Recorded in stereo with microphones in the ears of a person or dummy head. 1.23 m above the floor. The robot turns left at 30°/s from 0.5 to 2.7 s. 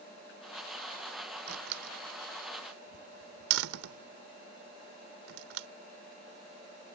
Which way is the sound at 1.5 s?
55° right (ahead or behind).